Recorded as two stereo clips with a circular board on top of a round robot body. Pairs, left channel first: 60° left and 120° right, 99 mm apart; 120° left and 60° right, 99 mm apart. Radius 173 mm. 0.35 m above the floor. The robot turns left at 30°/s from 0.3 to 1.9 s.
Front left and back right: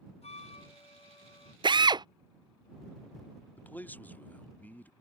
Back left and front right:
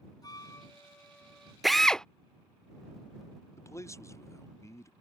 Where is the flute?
65° left; by 1.5 s 30° left.